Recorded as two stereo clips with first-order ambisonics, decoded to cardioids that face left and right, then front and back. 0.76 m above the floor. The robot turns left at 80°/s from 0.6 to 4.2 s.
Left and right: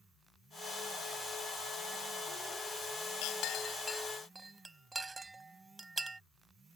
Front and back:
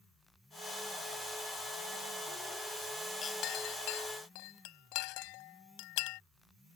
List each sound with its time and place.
3.2 s a clink: 65° left; by 6.2 s 10° right